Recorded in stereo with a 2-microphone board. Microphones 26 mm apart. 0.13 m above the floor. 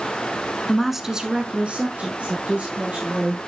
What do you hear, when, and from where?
0.7 s a woman speaking: 15° left (ahead or behind), 1.1 m; by 3.4 s 65° right (ahead or behind), 4 m